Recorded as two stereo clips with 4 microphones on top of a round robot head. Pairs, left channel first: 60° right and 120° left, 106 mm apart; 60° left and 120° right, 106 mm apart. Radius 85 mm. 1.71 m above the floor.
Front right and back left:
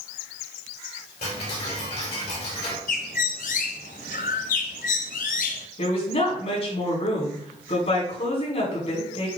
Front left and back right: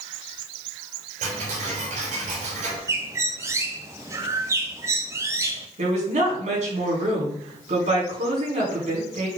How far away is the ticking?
About 4 m.